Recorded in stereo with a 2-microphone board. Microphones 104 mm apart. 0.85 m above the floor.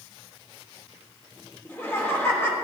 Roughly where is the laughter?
Left.